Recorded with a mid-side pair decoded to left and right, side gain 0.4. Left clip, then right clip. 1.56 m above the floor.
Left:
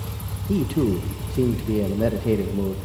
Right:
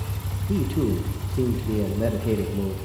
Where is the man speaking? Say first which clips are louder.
Left 3 dB; 25° left, 1.9 m.